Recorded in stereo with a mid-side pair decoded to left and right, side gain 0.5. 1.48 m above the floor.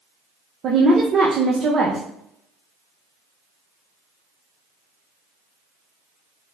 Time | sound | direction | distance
0.6 | a woman speaking | 50° right | 0.8 m